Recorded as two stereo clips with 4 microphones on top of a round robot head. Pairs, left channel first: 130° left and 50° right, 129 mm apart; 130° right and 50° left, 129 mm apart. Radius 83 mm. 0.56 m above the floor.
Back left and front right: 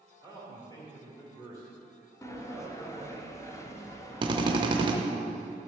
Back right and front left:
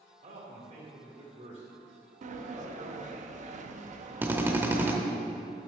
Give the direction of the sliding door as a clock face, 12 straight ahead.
10 o'clock.